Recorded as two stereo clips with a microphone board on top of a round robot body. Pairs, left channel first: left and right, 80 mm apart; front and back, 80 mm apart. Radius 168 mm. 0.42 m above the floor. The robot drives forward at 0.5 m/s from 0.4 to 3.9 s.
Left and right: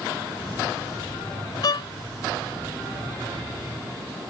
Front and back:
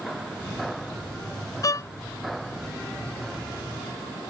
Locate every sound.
1.6 s a violin: 50° left; by 1.9 s 55° left